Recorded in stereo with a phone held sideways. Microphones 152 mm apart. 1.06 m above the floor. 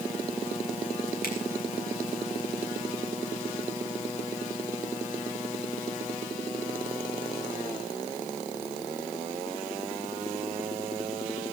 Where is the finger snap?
80° left, 7.5 m.